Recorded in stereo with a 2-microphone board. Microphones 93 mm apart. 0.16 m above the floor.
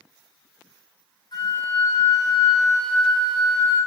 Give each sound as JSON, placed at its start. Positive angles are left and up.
{"t": 1.3, "sound": "a flute", "side_deg": 55, "distance_m": 2.5}